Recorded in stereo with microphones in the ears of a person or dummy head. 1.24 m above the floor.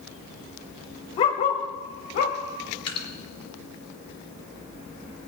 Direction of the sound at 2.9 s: 25° left (ahead or behind).